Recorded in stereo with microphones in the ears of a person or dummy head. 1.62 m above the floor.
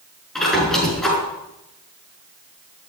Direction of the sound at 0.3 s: Centre (ahead or behind).